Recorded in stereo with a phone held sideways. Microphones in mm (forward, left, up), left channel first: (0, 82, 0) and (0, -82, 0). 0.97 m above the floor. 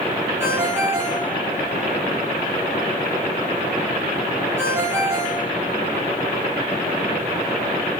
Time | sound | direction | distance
0.4 | a ringtone | 15° right (ahead or behind) | 4 m